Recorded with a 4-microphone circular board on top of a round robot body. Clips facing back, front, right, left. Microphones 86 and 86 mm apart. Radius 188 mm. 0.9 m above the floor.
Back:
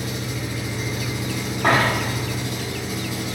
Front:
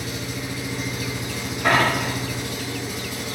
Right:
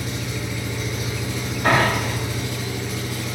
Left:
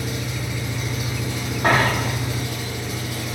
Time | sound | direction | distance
0.0 | an engine running | 135° left | 1.4 m
1.6 | a dropped coin | 140° left | 1.0 m